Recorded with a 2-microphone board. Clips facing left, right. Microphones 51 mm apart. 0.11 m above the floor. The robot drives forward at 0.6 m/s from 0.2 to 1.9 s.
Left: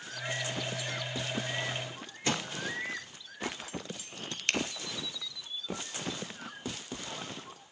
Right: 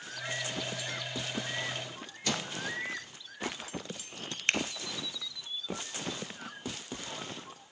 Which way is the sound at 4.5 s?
35° right (ahead or behind).